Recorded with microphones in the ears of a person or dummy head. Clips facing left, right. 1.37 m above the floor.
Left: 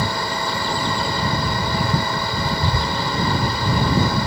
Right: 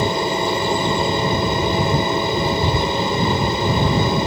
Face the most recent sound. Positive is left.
turn(degrees=-20)  # may be behind; listen again after turning